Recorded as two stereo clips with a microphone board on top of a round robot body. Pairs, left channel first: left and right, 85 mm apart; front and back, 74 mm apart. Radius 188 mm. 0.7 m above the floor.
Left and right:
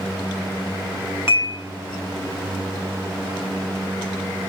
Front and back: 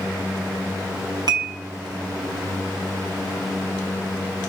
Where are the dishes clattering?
155° right, 5 m.